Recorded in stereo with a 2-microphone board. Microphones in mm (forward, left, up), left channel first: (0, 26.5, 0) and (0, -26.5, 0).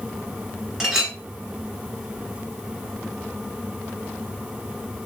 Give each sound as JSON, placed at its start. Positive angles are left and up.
{"t": 0.8, "sound": "a clink", "side_deg": -10, "distance_m": 0.9}